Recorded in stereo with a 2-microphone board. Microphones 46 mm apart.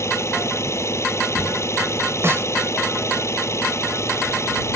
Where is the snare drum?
65° right (ahead or behind).